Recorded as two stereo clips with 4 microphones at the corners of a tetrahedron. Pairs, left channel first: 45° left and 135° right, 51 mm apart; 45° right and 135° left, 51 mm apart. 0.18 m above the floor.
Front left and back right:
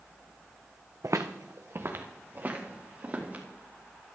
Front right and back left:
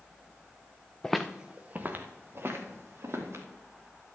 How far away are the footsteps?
About 0.8 m.